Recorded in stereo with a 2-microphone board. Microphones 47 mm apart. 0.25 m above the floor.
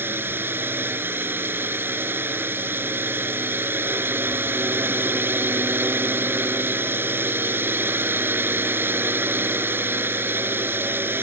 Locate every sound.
0.0 s a drone: 50° right (ahead or behind)